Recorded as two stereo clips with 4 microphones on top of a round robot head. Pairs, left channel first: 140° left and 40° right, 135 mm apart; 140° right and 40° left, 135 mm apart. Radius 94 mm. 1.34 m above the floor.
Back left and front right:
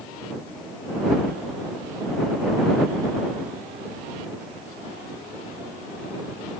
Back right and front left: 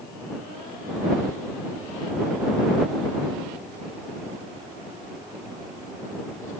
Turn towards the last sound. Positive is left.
No sound to turn to.